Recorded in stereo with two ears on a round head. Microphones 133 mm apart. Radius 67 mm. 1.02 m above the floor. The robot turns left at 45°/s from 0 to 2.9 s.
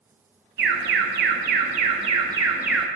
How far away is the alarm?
About 0.8 m.